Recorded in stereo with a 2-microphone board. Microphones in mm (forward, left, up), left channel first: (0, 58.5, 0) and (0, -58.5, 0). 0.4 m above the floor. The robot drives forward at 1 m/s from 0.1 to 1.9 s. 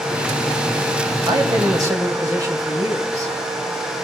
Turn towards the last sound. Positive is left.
turn(degrees=-30)  # may be behind; listen again after turning